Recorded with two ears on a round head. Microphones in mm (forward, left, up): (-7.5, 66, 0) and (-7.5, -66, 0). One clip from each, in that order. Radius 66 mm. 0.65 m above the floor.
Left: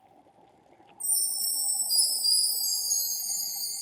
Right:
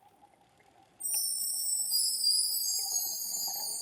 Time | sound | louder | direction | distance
1.0 | a chime | left 4 dB | 50° left (ahead or behind) | 1.5 m